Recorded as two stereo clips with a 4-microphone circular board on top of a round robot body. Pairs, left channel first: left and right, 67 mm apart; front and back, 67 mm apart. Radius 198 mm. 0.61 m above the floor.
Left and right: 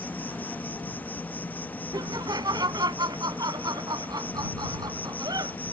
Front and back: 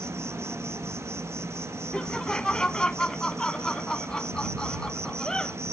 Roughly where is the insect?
Behind left.